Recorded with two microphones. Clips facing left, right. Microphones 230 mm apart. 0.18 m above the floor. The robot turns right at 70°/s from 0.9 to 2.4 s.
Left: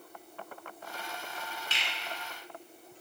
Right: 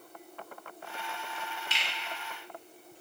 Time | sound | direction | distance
1.7 | a finger snap | 15° right (ahead or behind) | 1.4 m